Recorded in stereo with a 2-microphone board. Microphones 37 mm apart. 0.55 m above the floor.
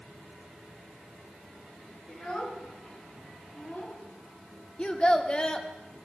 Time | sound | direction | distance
2.1 | a child speaking | 25° left (ahead or behind) | 3 m
4.8 | a child speaking | 25° left (ahead or behind) | 0.9 m